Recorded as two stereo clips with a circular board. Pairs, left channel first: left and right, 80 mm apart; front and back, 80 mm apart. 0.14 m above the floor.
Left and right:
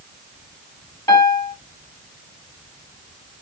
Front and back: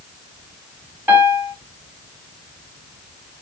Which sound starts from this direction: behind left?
A piano, at 1.1 s.